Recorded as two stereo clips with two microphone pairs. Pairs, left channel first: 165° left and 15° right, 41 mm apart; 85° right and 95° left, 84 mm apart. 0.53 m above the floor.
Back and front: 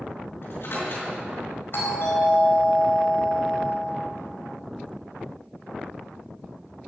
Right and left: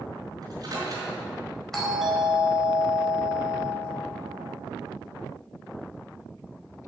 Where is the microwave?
135° left, 5.5 m.